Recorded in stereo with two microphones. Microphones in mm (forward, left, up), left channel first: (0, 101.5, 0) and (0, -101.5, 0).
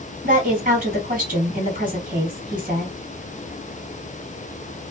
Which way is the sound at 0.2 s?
45° right (ahead or behind).